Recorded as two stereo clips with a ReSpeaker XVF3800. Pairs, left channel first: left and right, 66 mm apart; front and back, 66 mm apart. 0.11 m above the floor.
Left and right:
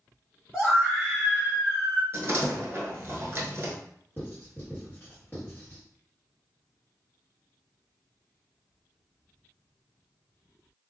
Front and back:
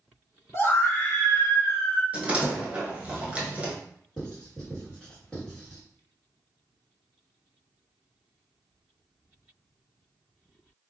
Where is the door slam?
120° right, 1.0 m.